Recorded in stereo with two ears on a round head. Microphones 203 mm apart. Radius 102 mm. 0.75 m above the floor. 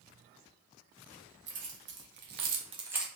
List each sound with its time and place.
1.5 s keys jangling: 55° right (ahead or behind), 1.2 m; by 3.1 s centre (ahead or behind), 0.5 m